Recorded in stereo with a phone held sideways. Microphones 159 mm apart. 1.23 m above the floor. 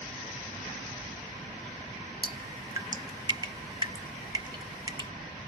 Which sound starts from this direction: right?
Dripping, at 2.2 s.